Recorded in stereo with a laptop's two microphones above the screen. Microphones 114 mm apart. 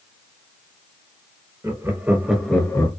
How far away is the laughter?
About 1.4 m.